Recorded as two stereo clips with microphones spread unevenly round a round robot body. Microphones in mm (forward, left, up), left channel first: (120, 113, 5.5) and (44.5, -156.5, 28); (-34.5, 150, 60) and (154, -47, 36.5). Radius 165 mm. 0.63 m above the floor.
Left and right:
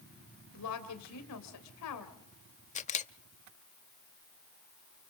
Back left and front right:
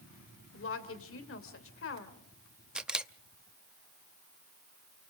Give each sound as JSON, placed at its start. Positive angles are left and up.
{"t": 0.5, "sound": "a woman speaking", "azimuth_deg": 100, "distance_m": 2.5}
{"t": 2.8, "sound": "a camera shutter", "azimuth_deg": 35, "distance_m": 0.8}